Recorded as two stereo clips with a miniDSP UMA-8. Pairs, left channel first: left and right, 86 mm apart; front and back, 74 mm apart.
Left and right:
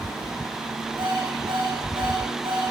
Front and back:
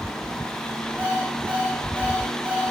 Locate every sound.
1.0 s an alarm clock: 110° right, 8 m